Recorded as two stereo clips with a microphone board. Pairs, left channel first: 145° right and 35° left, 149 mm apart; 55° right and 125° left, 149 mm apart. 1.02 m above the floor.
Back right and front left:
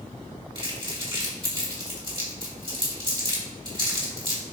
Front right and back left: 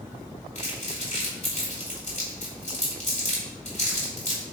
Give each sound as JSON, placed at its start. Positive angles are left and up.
{"t": 0.6, "sound": "crumpling", "azimuth_deg": -20, "distance_m": 3.5}